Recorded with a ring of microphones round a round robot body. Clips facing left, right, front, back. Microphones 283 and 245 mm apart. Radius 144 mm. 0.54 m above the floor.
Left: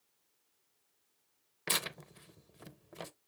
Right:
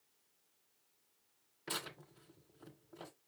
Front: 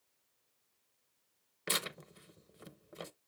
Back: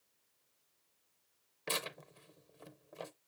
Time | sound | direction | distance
1.7 | tearing paper | 70° left | 0.6 m